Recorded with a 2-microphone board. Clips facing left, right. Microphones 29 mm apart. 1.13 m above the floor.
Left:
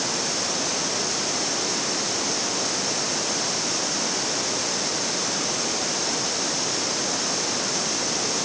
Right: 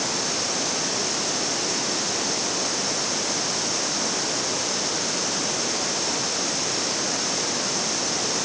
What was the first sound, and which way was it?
Only background noise.